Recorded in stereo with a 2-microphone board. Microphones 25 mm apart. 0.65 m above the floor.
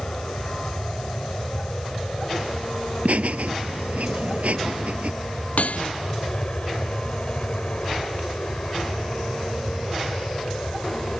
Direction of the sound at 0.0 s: 40° left (ahead or behind).